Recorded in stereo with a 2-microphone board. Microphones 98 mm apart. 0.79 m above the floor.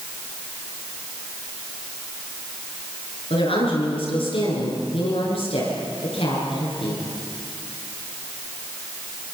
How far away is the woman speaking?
About 9.5 m.